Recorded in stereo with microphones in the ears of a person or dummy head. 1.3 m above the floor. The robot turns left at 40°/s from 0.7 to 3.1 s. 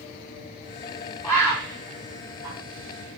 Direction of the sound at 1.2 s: 10° left (ahead or behind).